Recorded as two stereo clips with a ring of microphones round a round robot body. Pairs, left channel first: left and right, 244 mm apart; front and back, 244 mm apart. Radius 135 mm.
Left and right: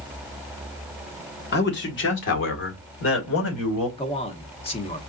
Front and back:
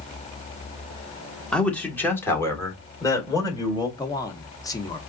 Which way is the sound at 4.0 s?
60° left.